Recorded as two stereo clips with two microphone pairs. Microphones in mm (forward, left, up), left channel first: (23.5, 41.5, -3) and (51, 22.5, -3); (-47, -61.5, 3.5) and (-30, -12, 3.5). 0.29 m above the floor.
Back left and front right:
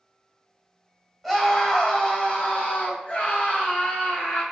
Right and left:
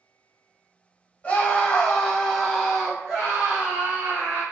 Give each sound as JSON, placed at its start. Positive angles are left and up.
{"t": 1.2, "sound": "a scream", "azimuth_deg": -125, "distance_m": 1.0}